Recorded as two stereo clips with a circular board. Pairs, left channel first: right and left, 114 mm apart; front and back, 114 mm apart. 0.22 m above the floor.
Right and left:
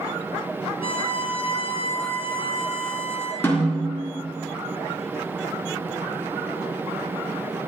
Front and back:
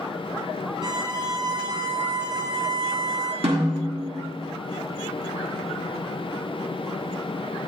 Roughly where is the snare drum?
Behind.